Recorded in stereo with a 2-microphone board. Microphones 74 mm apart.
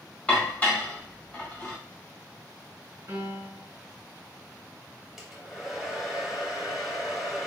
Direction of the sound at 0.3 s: 20° left (ahead or behind).